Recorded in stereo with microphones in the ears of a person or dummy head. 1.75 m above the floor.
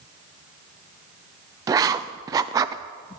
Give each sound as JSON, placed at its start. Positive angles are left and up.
{"t": 1.7, "sound": "writing", "side_deg": -20, "distance_m": 0.5}